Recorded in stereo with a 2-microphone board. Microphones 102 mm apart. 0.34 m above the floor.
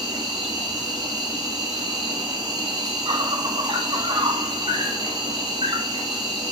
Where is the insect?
45° right (ahead or behind), 0.9 m.